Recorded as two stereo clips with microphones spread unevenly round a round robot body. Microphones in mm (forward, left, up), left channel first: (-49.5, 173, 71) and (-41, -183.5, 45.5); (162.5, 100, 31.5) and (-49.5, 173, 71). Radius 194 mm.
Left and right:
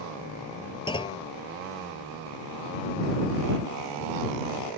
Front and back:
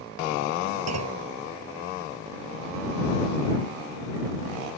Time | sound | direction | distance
0.9 | a clunk | 170° left | ?